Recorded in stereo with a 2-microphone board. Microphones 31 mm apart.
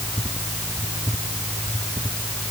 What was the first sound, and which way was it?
Only background noise.